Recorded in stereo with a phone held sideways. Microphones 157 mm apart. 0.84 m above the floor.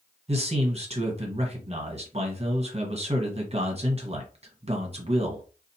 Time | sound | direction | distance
0.3 | a man speaking | 40° right (ahead or behind) | 1.1 m